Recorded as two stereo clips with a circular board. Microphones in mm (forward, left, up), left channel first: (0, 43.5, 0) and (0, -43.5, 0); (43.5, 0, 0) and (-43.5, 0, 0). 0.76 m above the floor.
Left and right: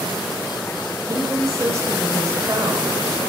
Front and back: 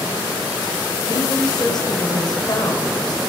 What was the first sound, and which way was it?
A woman speaking, 40° right.